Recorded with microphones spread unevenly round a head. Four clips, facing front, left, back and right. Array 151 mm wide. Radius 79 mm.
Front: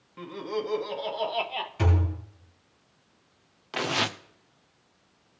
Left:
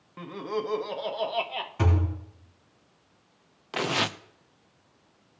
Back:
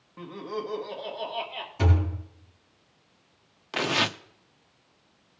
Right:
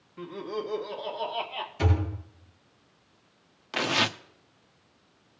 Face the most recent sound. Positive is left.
turn(degrees=110)